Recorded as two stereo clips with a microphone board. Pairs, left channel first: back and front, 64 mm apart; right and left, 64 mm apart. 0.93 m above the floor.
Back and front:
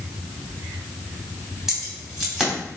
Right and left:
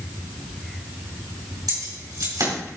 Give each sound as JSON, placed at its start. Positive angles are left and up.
{"t": 1.7, "sound": "keys jangling", "azimuth_deg": 85, "distance_m": 3.5}